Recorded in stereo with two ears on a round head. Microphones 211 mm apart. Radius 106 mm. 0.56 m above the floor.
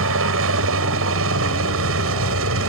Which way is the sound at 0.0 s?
60° right (ahead or behind).